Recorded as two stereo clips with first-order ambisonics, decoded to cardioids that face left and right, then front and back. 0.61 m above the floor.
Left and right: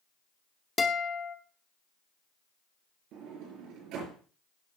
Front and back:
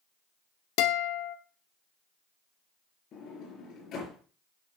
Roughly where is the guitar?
Ahead.